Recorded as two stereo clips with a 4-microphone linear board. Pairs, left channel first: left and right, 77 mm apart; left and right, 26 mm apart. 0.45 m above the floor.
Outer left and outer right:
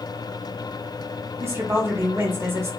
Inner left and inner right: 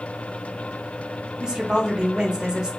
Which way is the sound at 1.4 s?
35° right (ahead or behind).